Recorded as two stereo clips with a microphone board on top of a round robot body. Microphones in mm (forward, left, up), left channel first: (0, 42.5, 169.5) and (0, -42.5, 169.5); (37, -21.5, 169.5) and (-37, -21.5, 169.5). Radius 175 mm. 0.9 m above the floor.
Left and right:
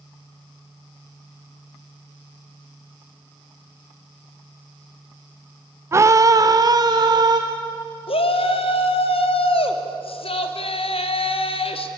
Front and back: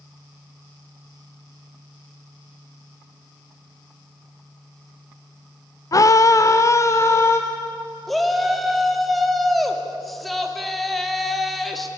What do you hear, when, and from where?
5.9 s a scream: 35° right, 0.8 m; by 7.4 s 50° right, 1.6 m
8.1 s a shout: 90° left, 2.5 m